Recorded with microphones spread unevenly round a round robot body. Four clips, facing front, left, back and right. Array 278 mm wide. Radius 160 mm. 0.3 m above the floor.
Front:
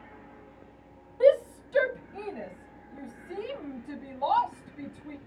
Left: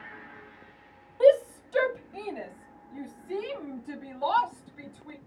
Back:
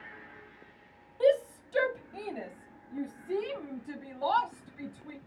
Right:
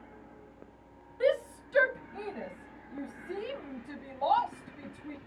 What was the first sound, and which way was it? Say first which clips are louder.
A shout: left 9 dB, front 4 dB; 35° left.